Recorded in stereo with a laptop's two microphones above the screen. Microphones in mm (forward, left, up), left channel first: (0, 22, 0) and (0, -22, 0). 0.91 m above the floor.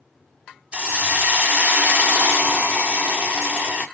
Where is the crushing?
No crushing in this recording.